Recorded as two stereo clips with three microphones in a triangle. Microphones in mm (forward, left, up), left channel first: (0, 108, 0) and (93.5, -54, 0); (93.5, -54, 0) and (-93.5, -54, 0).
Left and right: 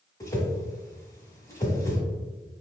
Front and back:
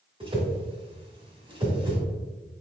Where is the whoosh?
170° left, 1.3 m.